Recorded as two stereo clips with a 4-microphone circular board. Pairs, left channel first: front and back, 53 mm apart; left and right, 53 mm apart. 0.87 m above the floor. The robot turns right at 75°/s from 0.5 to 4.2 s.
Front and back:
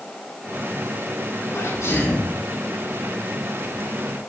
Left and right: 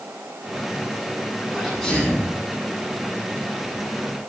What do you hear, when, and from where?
1.5 s a sneeze: 20° right, 8 m; by 2.3 s 40° left, 8 m